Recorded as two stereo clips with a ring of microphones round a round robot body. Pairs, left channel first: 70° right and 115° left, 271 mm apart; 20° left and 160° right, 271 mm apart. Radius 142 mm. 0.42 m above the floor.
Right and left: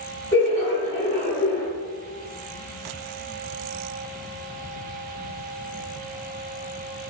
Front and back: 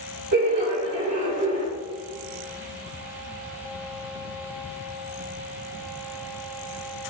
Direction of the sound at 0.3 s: 130° right.